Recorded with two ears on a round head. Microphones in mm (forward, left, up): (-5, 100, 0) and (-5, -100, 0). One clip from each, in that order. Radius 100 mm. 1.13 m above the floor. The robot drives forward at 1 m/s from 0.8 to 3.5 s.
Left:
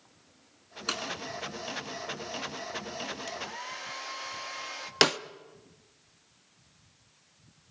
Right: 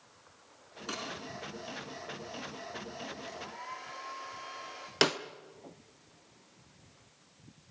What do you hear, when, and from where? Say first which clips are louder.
0.9 s breaking glass: left 6 dB; 50° left (ahead or behind), 4 m
3.3 s a hair dryer: left 5 dB; 85° left, 2 m; by 4.9 s 80° left, 2 m
5.0 s a snare drum: left 4 dB; 15° left (ahead or behind), 0.7 m